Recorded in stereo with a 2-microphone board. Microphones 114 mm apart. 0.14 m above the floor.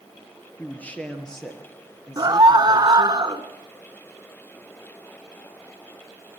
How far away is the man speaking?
About 2.5 m.